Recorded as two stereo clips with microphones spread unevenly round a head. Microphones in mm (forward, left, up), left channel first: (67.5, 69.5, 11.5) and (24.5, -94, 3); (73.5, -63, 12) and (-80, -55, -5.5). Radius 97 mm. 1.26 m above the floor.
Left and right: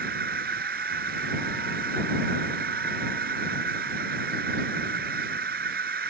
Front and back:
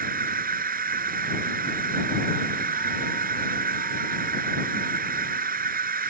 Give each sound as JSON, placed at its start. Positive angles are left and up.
{"t": 0.0, "sound": "a machine running", "azimuth_deg": -155}